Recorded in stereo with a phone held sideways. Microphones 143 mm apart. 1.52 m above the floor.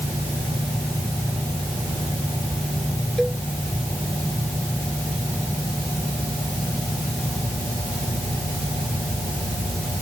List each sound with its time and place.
3.2 s a cowbell: centre (ahead or behind)